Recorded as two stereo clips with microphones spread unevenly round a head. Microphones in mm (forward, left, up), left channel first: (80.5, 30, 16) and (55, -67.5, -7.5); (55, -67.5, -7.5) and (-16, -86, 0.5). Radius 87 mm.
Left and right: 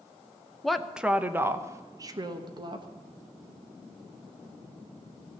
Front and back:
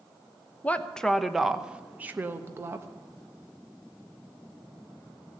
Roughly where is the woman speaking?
Ahead right.